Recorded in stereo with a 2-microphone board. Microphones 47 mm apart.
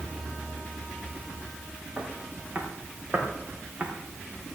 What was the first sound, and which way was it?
Footsteps, 35° right (ahead or behind).